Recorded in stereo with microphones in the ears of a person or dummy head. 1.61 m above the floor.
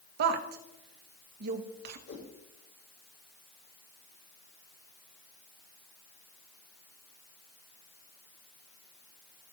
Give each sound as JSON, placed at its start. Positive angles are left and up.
{"t": 0.2, "sound": "a woman speaking", "side_deg": -55, "distance_m": 1.1}
{"t": 2.1, "sound": "a whoosh", "side_deg": 65, "distance_m": 3.5}